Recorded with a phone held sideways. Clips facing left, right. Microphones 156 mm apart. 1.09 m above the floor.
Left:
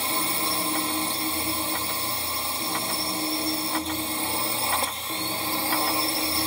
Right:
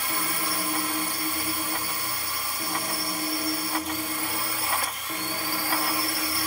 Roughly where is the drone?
Left.